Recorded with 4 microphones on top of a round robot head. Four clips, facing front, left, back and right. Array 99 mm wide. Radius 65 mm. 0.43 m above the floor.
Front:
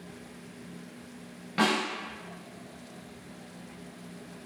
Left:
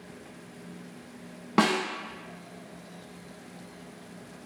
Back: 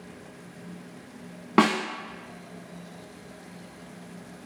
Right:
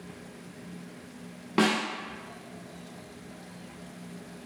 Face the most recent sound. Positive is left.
turn(degrees=165)